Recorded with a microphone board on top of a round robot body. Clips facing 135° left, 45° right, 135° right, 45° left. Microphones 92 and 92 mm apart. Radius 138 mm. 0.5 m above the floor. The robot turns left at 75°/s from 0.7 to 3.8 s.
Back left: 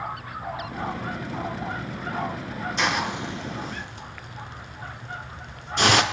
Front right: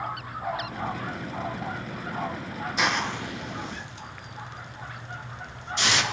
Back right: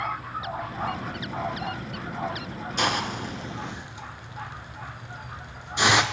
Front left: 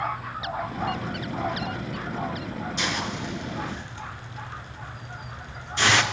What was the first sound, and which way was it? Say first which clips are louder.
A hiss: back left 1 dB, back right 5 dB; 130° right.